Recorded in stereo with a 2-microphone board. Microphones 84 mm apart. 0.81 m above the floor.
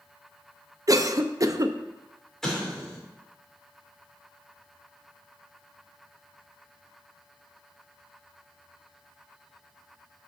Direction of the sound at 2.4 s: 5° left (ahead or behind).